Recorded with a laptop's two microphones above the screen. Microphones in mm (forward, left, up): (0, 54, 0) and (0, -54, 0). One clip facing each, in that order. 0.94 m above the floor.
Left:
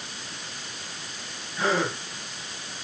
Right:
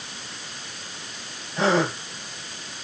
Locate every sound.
1.6 s a gasp: 75° right (ahead or behind), 5.5 m